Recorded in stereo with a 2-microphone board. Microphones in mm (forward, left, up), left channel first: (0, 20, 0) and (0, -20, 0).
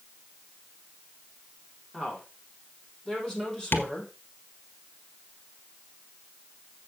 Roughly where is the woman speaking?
Left.